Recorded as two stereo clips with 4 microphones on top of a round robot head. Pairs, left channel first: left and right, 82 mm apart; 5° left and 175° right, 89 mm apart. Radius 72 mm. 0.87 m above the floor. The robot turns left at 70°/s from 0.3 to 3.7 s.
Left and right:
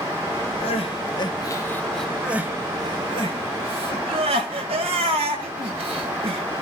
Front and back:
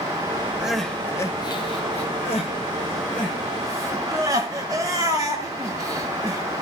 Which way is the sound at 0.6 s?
105° left.